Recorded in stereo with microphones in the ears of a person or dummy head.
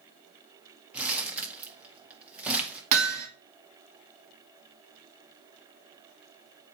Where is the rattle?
I don't hear a rattle.